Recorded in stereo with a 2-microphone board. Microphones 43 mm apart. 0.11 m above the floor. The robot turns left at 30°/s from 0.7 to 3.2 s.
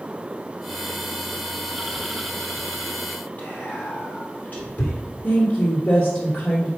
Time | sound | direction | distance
3.4 | whispering | 45° left (ahead or behind) | 2.5 m
5.2 | a woman speaking | 40° left (ahead or behind) | 2.5 m